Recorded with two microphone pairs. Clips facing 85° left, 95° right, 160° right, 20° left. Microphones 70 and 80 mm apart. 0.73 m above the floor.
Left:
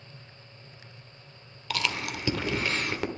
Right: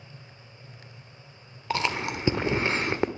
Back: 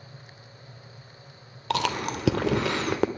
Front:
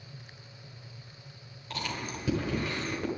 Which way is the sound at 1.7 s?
155° right.